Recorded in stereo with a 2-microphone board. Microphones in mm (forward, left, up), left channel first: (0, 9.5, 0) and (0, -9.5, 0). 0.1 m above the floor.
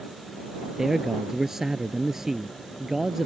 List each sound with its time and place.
0.8 s a man speaking: 20° right (ahead or behind)